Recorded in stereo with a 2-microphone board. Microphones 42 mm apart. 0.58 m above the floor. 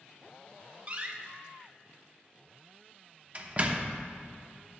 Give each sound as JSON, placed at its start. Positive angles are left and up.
{"t": 0.9, "sound": "a door slam", "side_deg": -35, "distance_m": 0.8}